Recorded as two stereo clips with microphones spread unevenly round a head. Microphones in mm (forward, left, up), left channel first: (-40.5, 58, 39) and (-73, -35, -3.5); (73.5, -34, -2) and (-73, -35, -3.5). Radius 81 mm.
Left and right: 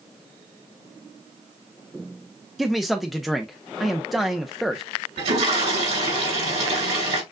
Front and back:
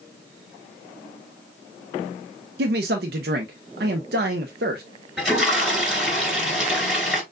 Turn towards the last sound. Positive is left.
turn(degrees=-95)